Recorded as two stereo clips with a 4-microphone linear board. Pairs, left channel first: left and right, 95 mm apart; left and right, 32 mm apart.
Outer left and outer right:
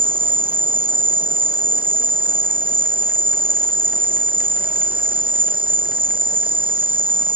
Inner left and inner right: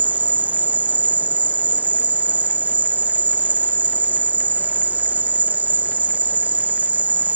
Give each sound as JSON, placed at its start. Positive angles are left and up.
{"t": 0.0, "sound": "an insect", "side_deg": -65}